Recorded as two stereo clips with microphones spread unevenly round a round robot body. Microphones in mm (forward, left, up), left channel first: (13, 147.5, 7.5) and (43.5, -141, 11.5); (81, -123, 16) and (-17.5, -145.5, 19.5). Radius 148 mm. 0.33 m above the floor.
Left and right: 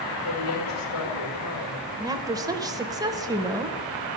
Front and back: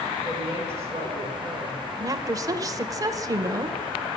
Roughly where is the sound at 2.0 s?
Behind right.